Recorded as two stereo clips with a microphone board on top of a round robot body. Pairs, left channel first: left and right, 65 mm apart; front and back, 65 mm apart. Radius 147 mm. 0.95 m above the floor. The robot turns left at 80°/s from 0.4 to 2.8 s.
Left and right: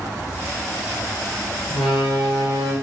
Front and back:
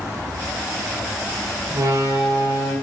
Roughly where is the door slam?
Behind.